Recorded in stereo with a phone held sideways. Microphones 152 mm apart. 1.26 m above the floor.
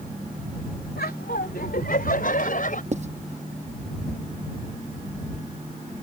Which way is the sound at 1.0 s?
85° left.